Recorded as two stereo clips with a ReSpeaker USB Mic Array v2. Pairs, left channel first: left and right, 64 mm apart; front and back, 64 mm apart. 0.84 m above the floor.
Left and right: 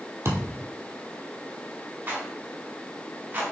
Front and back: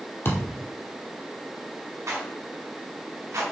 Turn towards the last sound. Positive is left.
turn(degrees=-145)